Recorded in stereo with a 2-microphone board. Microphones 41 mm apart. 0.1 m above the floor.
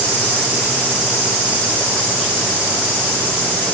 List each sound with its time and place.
Only background noise.